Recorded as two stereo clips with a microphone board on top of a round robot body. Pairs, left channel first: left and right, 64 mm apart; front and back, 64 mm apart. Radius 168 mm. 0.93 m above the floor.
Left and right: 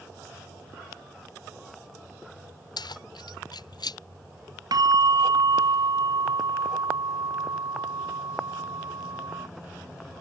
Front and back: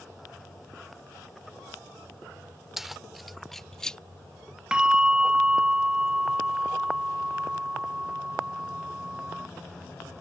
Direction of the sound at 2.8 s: 95° left.